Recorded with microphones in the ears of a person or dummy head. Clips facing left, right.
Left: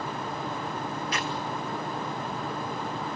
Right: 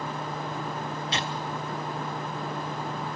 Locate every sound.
1.1 s tearing paper: 20° right (ahead or behind), 0.5 m